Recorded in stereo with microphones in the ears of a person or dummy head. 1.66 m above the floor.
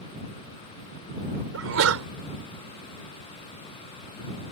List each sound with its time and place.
1.5 s a sneeze: 75° right (ahead or behind)